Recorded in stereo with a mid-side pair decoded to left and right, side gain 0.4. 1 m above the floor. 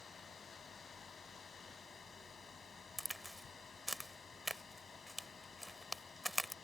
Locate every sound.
0.0 s a fan: 45° left
3.0 s a crack: 5° right